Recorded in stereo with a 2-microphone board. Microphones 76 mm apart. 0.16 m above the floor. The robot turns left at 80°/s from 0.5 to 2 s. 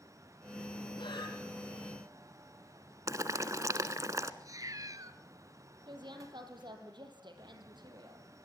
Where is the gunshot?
No gunshot in this recording.